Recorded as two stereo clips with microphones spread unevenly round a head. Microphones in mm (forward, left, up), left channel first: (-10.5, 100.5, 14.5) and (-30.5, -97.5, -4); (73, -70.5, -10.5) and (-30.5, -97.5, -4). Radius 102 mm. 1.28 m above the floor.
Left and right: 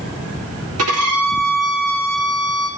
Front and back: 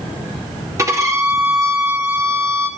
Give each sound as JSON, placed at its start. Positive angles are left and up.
{"t": 0.8, "sound": "a violin", "azimuth_deg": -105, "distance_m": 3.5}